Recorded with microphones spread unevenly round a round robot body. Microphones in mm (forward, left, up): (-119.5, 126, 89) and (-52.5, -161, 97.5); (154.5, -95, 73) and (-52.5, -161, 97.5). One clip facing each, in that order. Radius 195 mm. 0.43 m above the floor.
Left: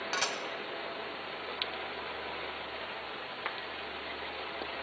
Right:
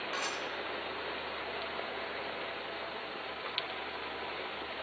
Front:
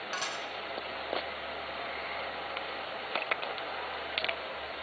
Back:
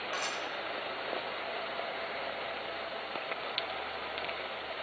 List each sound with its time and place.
0.1 s dishes clattering: 70° left, 2 m